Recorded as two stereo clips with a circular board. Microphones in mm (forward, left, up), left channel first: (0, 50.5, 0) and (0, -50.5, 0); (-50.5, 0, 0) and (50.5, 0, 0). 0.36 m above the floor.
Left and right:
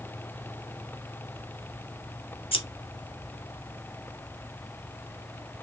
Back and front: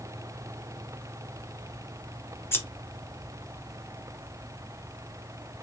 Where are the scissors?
115° left, 0.6 m.